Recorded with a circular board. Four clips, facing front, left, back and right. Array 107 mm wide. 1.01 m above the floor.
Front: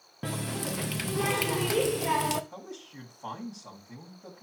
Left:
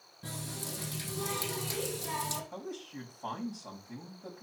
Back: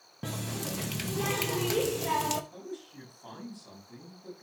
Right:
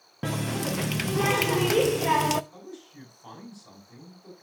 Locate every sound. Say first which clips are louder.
0.2 s a running tap: right 13 dB, front 3 dB; 75° right, 0.6 m
2.5 s a man speaking: left 2 dB, back 1 dB; 55° left, 5.5 m